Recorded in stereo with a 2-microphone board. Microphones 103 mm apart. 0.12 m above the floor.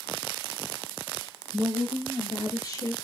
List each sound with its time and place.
1.5 s a woman speaking: 65° left (ahead or behind), 2.5 m; by 2.9 s 25° left (ahead or behind), 1.7 m